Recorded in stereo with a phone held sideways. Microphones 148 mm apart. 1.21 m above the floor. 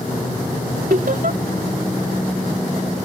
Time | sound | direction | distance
0.9 | laughter | 75° right (ahead or behind) | ?